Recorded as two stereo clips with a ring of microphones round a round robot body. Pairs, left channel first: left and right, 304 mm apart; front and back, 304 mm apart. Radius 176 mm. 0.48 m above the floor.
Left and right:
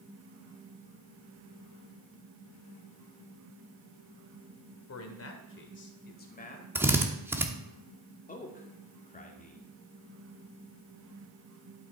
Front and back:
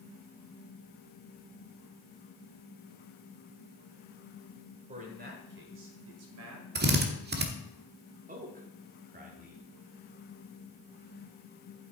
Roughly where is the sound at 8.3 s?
Behind left.